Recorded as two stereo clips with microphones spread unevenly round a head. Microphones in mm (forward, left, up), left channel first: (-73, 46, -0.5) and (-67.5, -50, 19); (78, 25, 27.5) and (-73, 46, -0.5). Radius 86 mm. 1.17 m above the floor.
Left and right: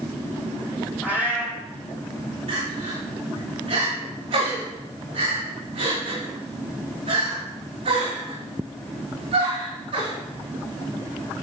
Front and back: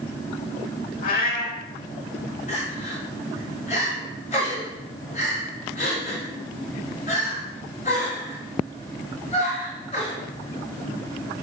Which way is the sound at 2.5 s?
60° right.